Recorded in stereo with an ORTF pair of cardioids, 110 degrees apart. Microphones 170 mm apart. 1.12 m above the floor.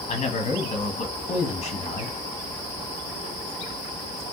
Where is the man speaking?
40° left, 1.1 m.